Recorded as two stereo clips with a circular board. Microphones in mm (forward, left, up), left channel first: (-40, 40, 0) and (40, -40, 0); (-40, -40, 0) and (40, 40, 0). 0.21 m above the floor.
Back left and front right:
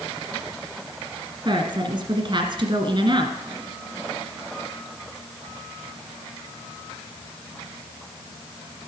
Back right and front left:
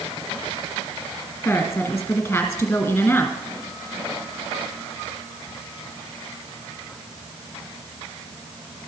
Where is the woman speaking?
65° right, 2.0 m.